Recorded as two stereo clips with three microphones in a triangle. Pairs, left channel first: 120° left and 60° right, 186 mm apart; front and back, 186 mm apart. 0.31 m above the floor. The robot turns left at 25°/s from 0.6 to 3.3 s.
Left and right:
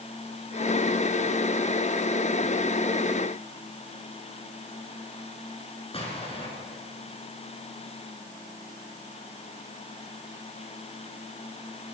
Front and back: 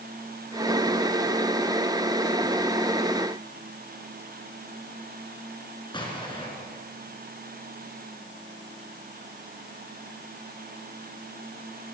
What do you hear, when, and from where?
5.9 s an explosion: 65° left, 5 m